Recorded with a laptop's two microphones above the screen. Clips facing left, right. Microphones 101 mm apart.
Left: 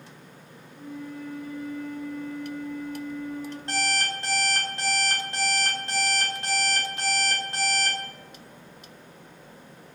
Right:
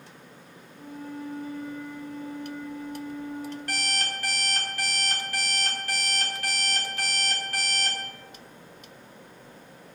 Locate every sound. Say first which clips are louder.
0.7 s a flute: left 1 dB; 30° right (ahead or behind), 0.7 m
3.7 s an alarm clock: left 8 dB; 25° left (ahead or behind), 1.6 m